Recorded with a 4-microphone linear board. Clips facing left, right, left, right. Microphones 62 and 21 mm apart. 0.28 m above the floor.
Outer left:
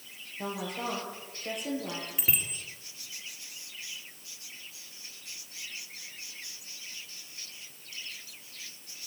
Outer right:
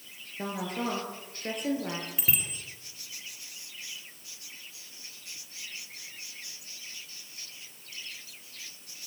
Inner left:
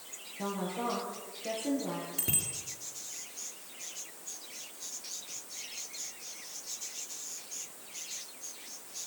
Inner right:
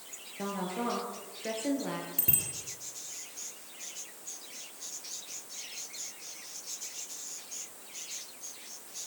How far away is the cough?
No cough in this recording.